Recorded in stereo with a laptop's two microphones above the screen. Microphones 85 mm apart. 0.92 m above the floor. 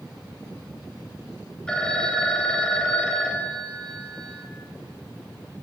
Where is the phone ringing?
10° left (ahead or behind), 3.5 m.